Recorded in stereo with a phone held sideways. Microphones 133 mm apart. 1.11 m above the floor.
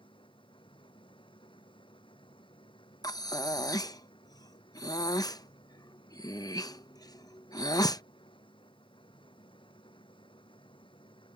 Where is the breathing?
30° left (ahead or behind).